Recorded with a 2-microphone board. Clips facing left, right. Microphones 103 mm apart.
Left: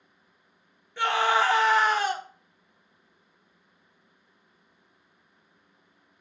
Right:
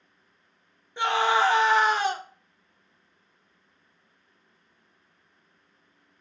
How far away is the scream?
About 0.6 m.